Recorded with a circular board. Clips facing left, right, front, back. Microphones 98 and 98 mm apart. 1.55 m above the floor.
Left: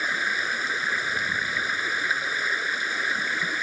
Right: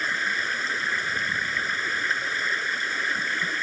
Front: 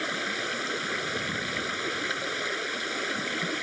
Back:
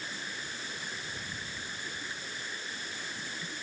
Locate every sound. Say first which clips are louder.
0.0 s running water: even, front 10 dB; 5° left